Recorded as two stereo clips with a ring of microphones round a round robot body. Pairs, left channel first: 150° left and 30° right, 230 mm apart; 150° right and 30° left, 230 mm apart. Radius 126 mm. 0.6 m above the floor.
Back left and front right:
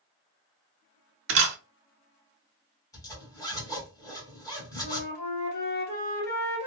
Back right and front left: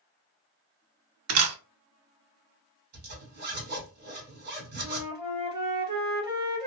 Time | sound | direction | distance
1.3 | a camera shutter | 5° left | 0.5 m
2.9 | a zipper | 75° left | 1.6 m
4.8 | a flute | 100° left | 1.8 m